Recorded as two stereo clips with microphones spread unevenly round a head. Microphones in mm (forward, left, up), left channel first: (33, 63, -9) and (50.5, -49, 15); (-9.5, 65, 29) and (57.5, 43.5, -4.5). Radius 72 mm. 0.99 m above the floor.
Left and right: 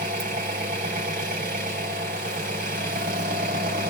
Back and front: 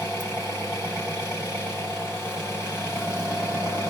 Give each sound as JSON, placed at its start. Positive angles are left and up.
{"t": 0.0, "sound": "an engine running", "azimuth_deg": -100, "distance_m": 4.5}